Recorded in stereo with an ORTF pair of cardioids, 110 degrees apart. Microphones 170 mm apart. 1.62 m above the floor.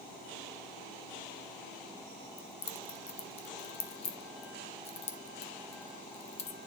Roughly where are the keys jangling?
Ahead left.